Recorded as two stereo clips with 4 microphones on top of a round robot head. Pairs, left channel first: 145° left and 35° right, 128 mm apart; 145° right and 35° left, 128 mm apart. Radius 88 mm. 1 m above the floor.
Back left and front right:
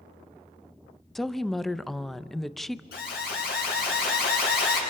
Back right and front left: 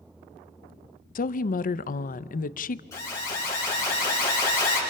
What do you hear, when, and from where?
1.1 s a woman speaking: 125° right, 0.5 m
2.9 s an alarm: 145° left, 6 m